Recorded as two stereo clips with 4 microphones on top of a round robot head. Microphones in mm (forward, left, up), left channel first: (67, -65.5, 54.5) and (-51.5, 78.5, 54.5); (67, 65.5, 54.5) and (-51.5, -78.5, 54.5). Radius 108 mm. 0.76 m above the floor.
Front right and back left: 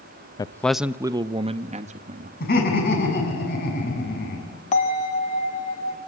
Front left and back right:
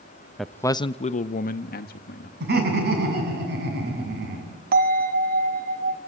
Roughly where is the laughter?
Right.